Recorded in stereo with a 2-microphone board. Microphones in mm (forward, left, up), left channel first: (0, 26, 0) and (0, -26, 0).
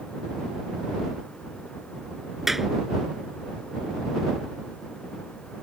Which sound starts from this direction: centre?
A clap, at 2.5 s.